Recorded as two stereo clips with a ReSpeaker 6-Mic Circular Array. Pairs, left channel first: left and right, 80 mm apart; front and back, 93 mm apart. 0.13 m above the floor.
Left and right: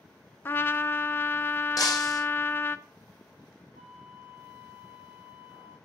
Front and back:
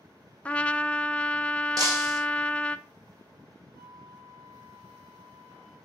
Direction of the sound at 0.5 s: 60° left.